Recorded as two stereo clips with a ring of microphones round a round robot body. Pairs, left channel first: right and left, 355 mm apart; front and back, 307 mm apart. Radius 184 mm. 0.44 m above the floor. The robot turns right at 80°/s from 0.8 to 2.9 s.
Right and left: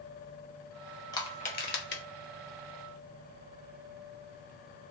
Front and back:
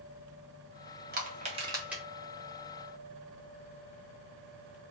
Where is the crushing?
160° right, 0.8 m; by 2.0 s 90° right, 0.8 m.